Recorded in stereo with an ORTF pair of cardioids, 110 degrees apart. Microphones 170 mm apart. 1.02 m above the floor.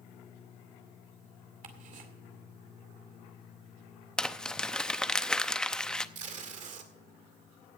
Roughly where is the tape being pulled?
Ahead right.